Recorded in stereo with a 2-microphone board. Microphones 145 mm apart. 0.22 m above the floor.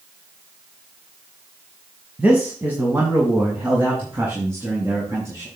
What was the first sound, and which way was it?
A man speaking, 10° right (ahead or behind).